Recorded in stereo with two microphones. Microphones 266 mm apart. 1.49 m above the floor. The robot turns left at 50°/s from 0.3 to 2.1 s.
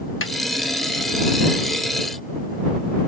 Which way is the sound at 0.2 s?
50° left (ahead or behind).